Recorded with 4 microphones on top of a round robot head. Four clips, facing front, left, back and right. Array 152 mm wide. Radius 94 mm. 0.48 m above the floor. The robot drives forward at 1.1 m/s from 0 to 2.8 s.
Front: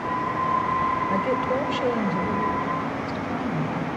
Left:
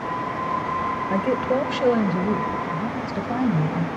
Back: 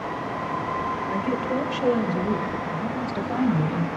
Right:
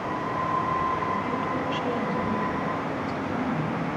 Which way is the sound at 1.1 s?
65° left.